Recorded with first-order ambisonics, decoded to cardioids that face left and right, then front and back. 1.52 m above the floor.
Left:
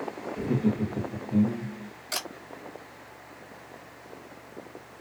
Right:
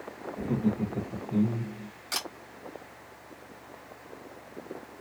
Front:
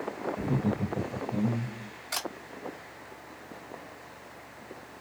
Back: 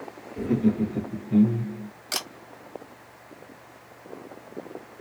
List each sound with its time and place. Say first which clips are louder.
0.4 s laughter: left 2 dB, back 5 dB; 165° left, 1.6 m; by 1.9 s 155° right, 1.0 m
2.1 s a camera shutter: even, back 3 dB; 175° right, 1.9 m